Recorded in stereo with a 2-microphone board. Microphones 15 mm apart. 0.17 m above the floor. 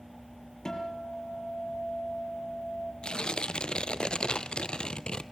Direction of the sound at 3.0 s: 80° left.